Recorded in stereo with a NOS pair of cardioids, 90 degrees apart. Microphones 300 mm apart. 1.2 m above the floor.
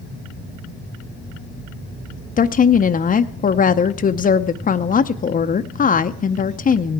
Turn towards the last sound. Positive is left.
turn(degrees=30)